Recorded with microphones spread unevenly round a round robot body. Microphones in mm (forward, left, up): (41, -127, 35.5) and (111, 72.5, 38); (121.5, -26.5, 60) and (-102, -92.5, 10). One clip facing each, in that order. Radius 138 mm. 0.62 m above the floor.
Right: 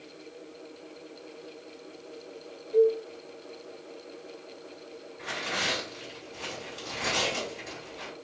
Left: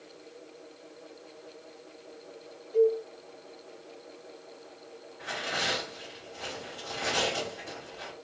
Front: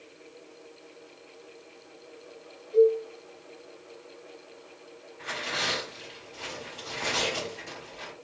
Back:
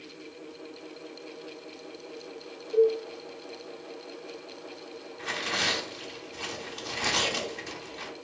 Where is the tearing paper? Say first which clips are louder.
Even, back 1 dB; 175° right, 1.6 m.